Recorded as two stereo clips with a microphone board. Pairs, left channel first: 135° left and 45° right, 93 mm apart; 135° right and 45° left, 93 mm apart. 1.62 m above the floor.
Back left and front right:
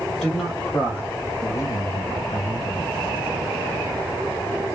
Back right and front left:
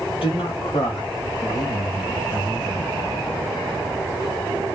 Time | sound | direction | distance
0.1 | a man speaking | 140° right | 1.3 m